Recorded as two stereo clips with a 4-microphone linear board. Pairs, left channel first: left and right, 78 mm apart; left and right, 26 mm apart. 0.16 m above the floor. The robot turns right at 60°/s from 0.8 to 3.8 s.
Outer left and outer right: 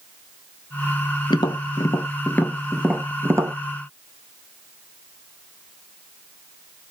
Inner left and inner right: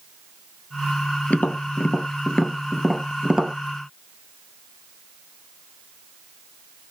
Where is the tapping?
80° left, 0.6 m; by 3.5 s 50° right (ahead or behind), 0.6 m.